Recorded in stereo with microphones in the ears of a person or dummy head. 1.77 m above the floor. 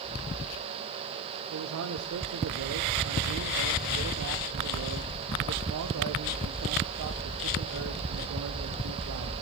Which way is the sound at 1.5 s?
70° right (ahead or behind).